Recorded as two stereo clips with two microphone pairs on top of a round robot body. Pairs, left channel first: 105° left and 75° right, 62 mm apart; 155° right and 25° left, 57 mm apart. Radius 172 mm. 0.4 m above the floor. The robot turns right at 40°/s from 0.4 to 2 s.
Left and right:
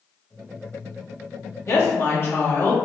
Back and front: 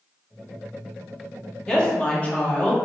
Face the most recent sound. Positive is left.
turn(degrees=140)